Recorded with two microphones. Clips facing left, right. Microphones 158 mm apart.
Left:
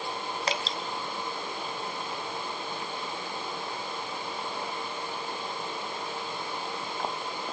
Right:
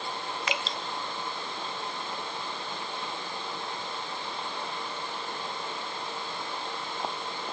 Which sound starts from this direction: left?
Dripping, at 0.5 s.